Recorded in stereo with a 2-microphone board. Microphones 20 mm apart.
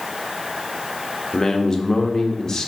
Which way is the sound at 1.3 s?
30° left (ahead or behind).